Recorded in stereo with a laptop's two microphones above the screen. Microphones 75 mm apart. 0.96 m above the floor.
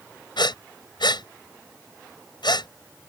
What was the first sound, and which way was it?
Breathing, 85° left.